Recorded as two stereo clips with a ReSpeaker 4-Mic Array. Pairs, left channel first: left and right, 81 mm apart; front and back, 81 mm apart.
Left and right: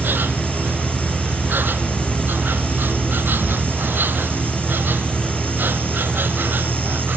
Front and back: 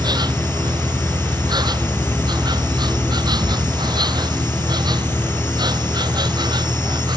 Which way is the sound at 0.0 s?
155° right.